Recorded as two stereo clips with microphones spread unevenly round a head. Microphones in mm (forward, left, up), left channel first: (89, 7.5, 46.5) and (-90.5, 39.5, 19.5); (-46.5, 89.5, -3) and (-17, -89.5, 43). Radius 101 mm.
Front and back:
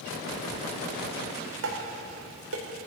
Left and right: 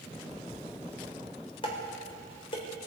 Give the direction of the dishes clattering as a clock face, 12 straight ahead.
7 o'clock.